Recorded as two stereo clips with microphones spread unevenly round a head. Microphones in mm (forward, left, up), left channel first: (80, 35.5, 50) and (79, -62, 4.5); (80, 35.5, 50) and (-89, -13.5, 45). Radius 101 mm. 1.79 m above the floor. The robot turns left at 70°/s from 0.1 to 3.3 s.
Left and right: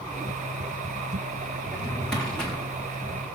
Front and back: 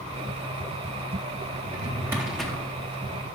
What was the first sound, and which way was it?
A drawer, 155° left.